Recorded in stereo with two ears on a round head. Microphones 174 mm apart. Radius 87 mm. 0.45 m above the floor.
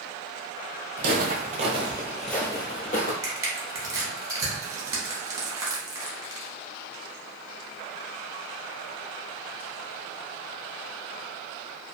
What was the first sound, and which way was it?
Footsteps, 55° right (ahead or behind).